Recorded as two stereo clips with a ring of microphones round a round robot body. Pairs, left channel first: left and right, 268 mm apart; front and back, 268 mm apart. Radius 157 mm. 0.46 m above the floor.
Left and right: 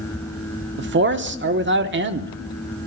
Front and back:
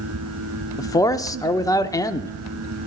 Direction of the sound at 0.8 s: 75° right.